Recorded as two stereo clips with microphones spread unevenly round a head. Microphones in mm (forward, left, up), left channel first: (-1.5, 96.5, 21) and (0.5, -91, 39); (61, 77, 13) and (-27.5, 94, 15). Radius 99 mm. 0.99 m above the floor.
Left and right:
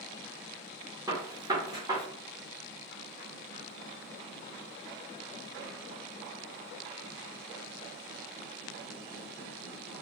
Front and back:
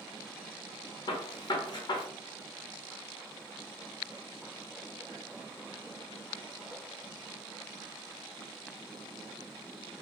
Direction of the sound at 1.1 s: 20° right.